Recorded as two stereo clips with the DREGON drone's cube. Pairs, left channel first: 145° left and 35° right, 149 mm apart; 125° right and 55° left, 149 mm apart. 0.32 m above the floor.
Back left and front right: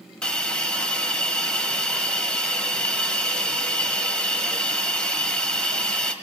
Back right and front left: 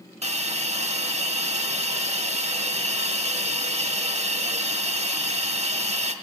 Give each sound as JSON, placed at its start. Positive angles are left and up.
{"t": 0.2, "sound": "a hiss", "azimuth_deg": 65, "distance_m": 0.5}